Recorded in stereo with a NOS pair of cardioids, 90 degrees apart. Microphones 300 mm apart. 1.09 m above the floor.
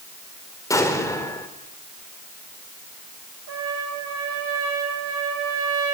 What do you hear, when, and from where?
0.7 s an explosion: 10° left, 3.5 m
3.5 s a trumpet: 50° right, 5.5 m